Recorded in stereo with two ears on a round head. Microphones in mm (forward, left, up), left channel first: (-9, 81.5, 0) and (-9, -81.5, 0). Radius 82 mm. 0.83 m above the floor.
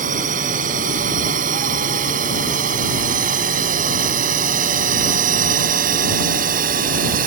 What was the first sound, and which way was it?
A drone, 45° right (ahead or behind).